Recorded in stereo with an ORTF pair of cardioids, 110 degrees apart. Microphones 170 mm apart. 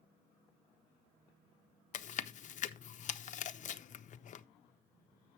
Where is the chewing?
45° left, 0.8 m.